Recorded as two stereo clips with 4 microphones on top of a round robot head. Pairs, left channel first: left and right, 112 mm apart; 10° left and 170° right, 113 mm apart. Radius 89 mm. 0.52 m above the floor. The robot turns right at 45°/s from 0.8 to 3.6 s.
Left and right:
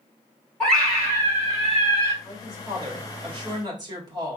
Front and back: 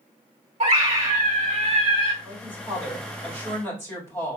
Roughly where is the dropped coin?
No dropped coin in this recording.